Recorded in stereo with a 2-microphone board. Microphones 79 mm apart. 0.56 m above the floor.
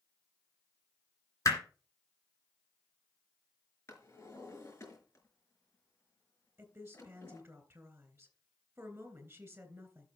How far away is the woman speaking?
About 3.5 m.